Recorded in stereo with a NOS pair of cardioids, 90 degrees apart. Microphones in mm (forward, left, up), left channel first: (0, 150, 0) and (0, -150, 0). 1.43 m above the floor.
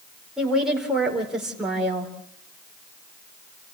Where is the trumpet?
I don't hear a trumpet.